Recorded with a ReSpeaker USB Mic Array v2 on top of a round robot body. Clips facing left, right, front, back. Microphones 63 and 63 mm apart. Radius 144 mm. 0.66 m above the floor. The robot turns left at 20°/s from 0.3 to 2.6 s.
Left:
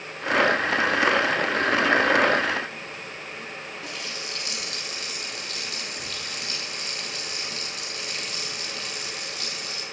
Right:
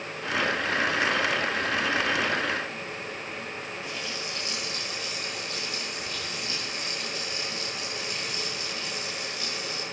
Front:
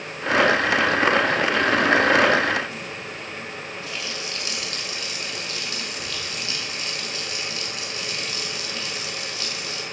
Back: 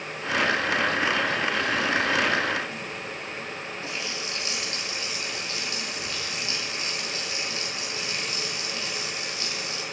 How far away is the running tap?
About 6 m.